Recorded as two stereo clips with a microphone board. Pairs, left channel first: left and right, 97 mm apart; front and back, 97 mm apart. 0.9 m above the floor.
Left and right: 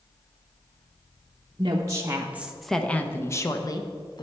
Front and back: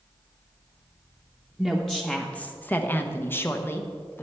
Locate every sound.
1.6 s a woman speaking: 90° right, 0.8 m; by 4.2 s 65° left, 1.1 m